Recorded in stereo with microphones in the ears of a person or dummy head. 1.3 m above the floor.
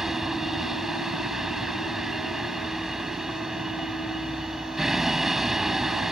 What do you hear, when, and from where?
0.0 s a vehicle: 5° right (ahead or behind)